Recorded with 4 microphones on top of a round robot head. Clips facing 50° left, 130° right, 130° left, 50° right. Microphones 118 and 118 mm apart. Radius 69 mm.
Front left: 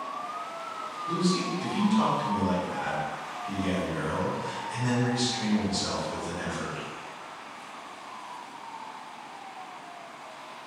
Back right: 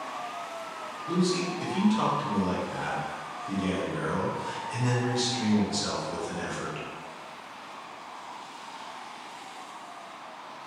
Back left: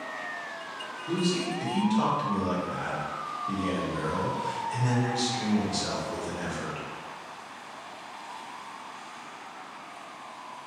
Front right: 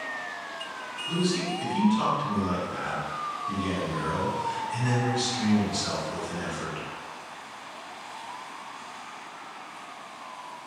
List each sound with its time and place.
1.1 s a man speaking: 165° left, 1.0 m